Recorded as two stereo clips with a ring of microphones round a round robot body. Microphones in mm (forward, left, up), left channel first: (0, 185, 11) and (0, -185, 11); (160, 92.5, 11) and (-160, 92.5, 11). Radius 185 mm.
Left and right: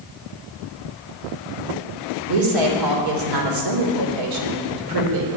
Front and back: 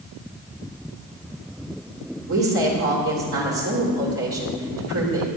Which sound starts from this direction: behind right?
A woman speaking, at 2.3 s.